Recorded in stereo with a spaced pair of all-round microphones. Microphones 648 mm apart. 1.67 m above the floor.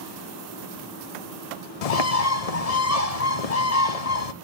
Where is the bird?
65° left (ahead or behind), 0.6 m.